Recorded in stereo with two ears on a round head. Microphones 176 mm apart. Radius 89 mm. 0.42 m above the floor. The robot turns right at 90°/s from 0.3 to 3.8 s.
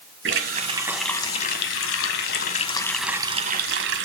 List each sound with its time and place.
0.2 s a running tap: 65° right, 1.7 m; by 4.0 s 110° right, 1.7 m